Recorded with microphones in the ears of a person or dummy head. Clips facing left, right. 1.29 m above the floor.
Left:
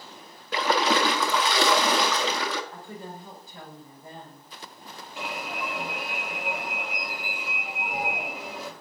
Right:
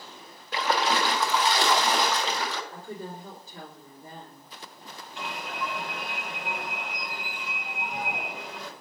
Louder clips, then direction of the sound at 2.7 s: Right 2 dB; 65° right (ahead or behind).